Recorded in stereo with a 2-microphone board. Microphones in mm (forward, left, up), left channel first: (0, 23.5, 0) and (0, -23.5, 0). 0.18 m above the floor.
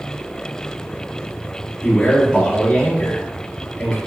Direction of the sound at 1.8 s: 20° left (ahead or behind).